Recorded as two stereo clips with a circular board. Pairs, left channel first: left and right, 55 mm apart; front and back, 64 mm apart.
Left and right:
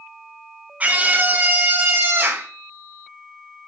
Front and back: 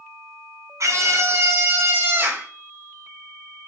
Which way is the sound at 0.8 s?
155° right.